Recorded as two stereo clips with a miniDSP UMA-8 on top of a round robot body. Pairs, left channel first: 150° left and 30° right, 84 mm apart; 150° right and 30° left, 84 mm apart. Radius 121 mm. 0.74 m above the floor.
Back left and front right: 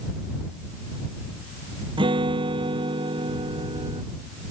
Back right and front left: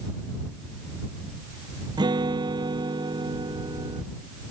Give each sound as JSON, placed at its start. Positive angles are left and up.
{"t": 2.0, "sound": "a guitar", "azimuth_deg": -5}